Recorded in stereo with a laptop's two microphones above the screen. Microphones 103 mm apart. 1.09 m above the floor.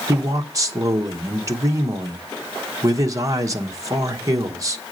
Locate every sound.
0.1 s a man speaking: 30° right (ahead or behind), 1.0 m